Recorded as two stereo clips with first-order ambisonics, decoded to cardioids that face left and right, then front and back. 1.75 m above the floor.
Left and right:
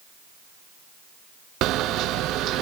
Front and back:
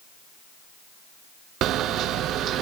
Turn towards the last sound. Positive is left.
turn(degrees=-135)